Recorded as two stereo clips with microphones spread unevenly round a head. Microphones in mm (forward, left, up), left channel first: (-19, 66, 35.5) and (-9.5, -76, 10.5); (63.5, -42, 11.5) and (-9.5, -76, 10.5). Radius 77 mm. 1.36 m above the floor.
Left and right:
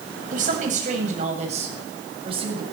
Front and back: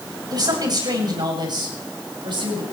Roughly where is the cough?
I don't hear a cough.